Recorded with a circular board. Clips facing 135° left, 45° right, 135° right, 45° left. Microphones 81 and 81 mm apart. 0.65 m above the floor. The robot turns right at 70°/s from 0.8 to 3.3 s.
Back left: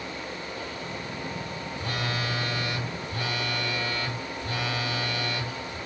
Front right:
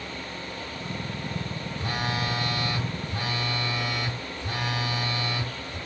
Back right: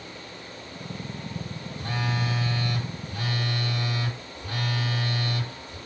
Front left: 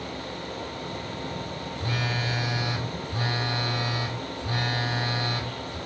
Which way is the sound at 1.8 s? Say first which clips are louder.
Front right 2 dB, back right 1 dB; 95° right.